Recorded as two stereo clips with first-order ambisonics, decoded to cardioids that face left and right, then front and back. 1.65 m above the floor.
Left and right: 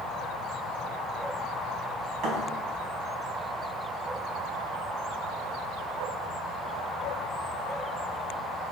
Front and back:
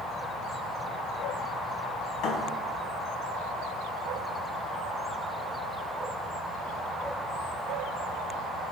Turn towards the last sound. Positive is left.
turn(degrees=-35)